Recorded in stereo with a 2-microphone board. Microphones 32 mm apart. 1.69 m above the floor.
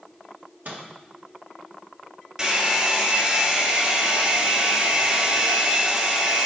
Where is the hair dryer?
20° right (ahead or behind), 1.5 m.